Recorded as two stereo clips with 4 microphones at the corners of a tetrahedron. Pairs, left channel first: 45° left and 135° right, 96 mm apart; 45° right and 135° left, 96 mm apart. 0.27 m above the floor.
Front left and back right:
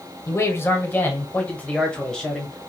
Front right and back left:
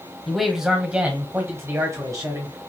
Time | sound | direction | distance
0.3 | a man speaking | 45° left | 1.5 m